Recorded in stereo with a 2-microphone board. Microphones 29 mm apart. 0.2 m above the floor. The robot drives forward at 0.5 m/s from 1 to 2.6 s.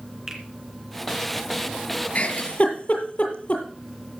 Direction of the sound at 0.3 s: 20° right (ahead or behind).